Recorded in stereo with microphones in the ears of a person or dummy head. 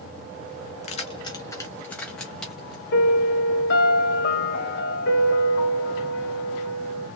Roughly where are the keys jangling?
Left.